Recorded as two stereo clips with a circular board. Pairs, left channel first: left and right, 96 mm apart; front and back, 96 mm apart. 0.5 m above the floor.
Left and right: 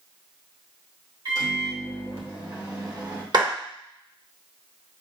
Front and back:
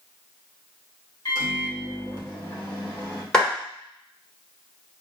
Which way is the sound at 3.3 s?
80° right.